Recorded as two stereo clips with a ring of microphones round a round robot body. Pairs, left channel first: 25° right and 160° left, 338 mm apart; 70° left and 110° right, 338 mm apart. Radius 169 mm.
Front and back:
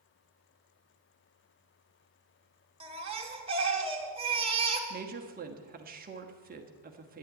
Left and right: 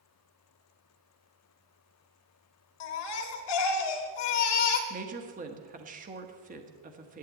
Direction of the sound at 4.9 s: 160° right.